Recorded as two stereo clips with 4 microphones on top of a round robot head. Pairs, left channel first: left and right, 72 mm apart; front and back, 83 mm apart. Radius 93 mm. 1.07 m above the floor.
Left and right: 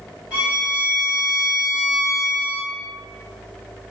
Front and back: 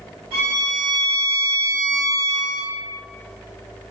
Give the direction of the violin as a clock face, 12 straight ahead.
5 o'clock.